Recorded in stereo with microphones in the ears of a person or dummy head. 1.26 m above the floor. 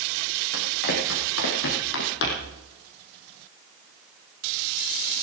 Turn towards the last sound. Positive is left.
turn(degrees=65)  # may be behind; listen again after turning